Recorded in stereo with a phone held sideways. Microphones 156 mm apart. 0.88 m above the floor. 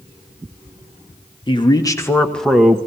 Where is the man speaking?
30° left (ahead or behind), 1.4 m; by 2.8 s 15° right (ahead or behind), 0.9 m.